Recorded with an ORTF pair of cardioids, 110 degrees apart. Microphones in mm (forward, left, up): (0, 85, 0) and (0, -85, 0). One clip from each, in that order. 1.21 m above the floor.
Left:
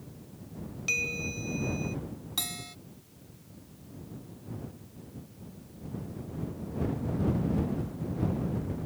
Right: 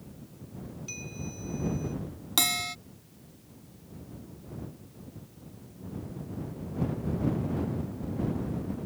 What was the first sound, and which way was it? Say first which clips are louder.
A bell: left 13 dB; 70° left.